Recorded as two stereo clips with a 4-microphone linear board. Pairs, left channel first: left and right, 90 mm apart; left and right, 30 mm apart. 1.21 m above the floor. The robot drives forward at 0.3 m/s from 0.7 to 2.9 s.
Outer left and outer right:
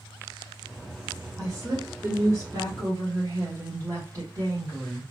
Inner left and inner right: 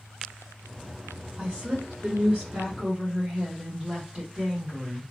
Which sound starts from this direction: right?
A woman speaking, at 1.4 s.